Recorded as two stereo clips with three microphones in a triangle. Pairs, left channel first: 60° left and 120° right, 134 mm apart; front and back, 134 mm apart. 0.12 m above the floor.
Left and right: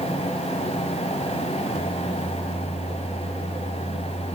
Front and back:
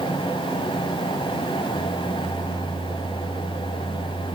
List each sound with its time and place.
Only background noise.